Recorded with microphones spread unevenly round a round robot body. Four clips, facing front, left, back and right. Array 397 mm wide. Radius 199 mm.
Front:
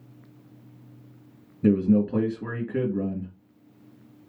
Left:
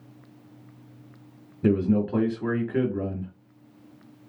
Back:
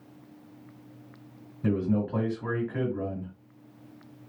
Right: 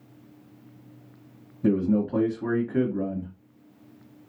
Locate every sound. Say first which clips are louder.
1.6 s a man speaking: even, front 6 dB; 30° left, 1.1 m